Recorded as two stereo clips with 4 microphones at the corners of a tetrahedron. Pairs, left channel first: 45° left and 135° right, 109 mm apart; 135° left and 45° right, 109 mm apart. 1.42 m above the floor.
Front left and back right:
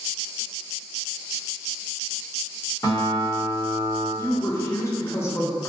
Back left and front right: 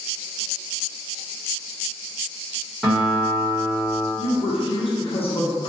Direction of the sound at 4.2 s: 110° left.